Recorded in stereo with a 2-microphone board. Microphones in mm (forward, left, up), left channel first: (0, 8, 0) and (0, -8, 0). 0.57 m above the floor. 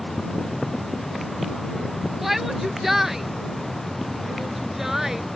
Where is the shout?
20° right (ahead or behind); by 5.2 s 30° right (ahead or behind).